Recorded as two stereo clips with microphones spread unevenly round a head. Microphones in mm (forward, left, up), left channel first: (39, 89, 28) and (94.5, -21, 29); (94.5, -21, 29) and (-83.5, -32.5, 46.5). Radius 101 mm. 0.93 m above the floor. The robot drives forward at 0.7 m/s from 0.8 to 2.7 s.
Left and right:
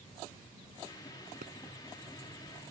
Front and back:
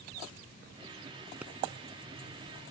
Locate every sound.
1.4 s a pop: 95° right